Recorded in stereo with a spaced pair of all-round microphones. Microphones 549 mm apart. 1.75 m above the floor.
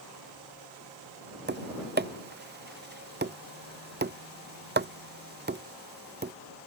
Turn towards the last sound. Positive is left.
turn(degrees=-20)  # may be behind; listen again after turning